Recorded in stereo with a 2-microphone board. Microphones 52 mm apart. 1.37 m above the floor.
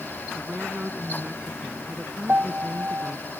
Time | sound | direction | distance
0.3 | a woman speaking | 25° right (ahead or behind) | ?
2.3 | a piano | 35° right (ahead or behind) | ?